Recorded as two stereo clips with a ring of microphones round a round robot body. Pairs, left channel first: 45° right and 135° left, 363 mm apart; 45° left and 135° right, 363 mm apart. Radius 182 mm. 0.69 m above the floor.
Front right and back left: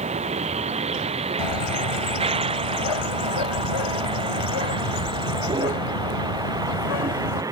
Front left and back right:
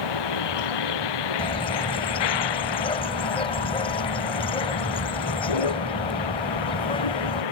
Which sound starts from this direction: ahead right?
A bird, at 1.4 s.